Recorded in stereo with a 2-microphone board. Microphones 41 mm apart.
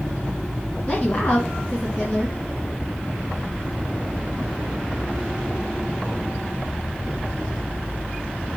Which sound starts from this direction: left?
A woman speaking, at 0.9 s.